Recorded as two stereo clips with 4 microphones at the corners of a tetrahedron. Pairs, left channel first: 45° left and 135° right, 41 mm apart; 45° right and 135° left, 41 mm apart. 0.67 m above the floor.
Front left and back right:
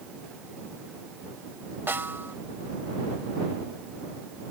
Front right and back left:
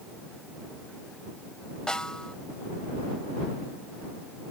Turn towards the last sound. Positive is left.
turn(degrees=-110)